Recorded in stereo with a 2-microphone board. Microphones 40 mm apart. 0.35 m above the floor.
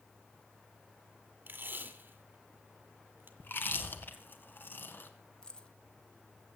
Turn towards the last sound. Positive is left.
turn(degrees=20)  # may be behind; listen again after turning